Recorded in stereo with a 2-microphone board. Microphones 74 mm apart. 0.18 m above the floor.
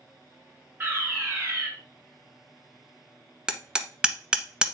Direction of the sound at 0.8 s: 30° right (ahead or behind).